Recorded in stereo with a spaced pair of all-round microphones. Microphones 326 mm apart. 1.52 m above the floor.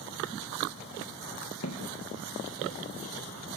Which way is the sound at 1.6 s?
55° left (ahead or behind).